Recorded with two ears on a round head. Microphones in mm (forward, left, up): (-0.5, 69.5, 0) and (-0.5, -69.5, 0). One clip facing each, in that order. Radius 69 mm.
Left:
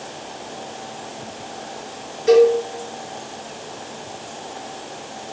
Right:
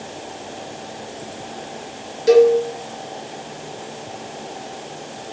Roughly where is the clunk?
I don't hear a clunk.